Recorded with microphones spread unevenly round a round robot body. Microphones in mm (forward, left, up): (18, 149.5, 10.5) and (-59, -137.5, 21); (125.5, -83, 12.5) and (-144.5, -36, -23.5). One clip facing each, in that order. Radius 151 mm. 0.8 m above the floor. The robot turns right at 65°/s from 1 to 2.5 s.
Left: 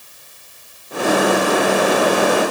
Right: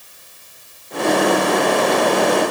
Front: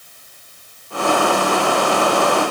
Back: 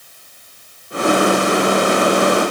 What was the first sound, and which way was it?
Only background noise.